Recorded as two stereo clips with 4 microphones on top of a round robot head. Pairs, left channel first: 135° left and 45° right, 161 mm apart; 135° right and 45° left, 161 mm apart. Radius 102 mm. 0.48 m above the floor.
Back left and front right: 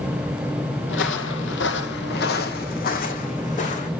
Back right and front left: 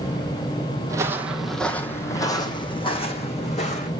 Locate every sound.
0.9 s footsteps: 115° left, 1.0 m; by 3.9 s straight behind, 1.9 m